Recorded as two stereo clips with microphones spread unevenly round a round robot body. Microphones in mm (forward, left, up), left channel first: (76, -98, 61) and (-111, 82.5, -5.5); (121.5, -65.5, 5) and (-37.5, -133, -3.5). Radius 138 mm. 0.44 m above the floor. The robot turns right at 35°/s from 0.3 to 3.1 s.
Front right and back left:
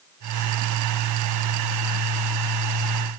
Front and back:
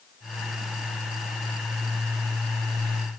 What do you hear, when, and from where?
Only background noise.